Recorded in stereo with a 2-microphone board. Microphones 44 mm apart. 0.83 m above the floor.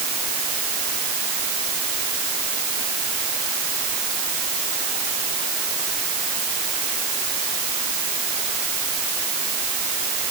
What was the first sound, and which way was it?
Only background noise.